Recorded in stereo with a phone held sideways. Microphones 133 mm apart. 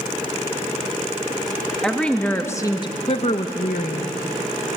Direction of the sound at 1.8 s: 5° left (ahead or behind).